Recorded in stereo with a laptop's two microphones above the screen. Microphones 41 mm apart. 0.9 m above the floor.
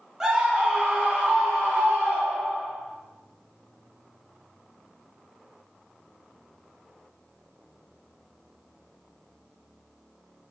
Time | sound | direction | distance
0.2 | a scream | 10° right (ahead or behind) | 1.1 m